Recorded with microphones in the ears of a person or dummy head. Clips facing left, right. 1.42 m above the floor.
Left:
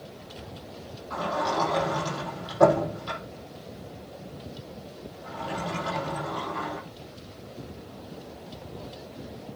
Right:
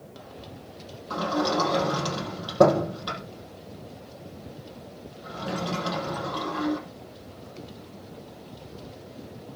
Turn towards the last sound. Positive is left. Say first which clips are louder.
# right 3 dB
turn(degrees=-75)  # may be behind; listen again after turning